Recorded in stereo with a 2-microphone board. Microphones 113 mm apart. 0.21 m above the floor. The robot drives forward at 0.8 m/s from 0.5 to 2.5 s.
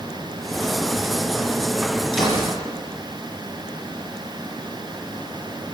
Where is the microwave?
I don't hear a microwave.